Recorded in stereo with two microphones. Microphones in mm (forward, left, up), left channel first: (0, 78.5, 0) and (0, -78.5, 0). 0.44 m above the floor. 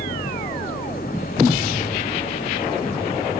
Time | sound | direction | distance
0.0 | an engine running | 65° left (ahead or behind) | ?